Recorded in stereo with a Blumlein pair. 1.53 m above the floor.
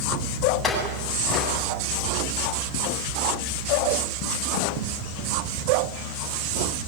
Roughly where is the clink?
Ahead.